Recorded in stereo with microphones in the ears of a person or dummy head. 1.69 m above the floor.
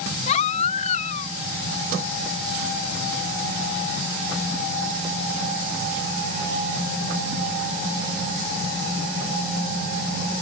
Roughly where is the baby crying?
Left.